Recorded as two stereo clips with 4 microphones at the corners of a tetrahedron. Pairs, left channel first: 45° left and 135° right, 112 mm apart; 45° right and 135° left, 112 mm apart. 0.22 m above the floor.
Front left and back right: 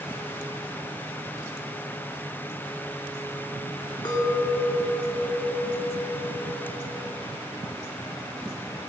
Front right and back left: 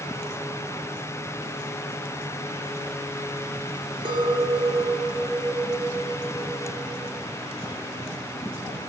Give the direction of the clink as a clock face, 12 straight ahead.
9 o'clock.